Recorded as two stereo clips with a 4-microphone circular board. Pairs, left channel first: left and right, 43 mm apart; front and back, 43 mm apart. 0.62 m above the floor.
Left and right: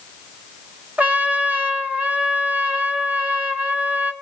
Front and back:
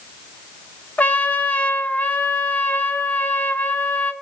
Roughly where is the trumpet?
Ahead right.